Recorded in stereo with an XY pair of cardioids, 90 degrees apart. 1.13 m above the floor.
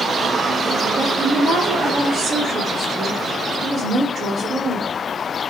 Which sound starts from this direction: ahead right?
A woman speaking, at 1.0 s.